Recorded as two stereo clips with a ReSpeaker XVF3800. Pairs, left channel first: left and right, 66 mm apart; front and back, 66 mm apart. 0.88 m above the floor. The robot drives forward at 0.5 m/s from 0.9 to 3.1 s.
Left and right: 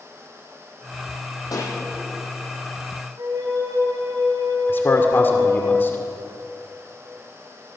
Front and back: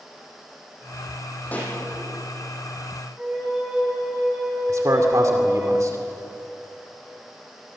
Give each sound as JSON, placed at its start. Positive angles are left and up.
{"t": 1.5, "sound": "a pop", "azimuth_deg": 65, "distance_m": 8.0}
{"t": 3.2, "sound": "a flute", "azimuth_deg": -105, "distance_m": 10.0}
{"t": 4.7, "sound": "a man speaking", "azimuth_deg": 145, "distance_m": 2.5}